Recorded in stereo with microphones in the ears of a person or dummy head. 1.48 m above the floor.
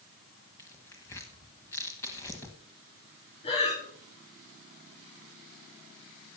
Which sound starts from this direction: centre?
Tearing paper, at 0.6 s.